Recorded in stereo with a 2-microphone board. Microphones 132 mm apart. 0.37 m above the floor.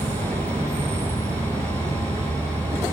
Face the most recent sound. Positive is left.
turn(degrees=-55)  # may be behind; listen again after turning